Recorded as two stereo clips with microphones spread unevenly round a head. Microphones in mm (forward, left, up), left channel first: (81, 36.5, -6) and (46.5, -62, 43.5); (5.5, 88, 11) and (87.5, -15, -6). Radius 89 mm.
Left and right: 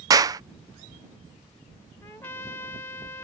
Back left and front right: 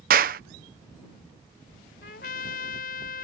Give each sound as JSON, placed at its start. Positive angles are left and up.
{"t": 0.1, "sound": "a clap", "azimuth_deg": -80}
{"t": 2.0, "sound": "a trumpet", "azimuth_deg": 155}